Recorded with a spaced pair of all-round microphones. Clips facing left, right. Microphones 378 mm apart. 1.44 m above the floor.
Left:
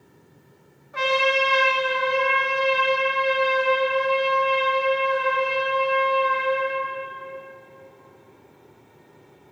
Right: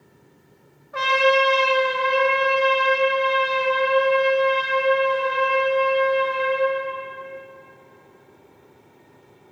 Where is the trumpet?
75° right (ahead or behind), 2.5 m.